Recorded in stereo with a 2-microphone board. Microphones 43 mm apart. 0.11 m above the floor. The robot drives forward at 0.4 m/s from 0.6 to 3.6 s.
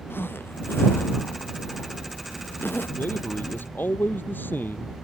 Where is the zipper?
65° left (ahead or behind); by 2.9 s 60° left (ahead or behind).